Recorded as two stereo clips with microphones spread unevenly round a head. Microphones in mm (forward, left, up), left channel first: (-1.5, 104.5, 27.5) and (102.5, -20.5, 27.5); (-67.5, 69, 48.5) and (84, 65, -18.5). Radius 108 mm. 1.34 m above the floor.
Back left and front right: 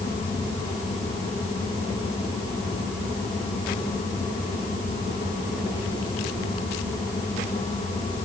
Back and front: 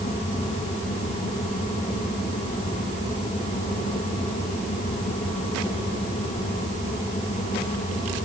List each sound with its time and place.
Only background noise.